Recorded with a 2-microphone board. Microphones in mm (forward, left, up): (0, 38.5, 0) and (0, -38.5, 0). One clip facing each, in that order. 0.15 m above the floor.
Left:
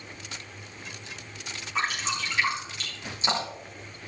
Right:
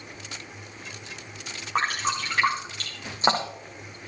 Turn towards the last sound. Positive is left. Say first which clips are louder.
# right 4 dB
turn(degrees=-50)  # may be behind; listen again after turning